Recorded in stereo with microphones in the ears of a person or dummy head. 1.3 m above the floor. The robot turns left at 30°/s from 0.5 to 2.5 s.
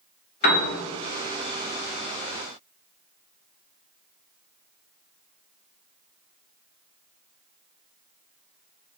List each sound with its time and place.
0.4 s a piano: 50° left (ahead or behind), 0.6 m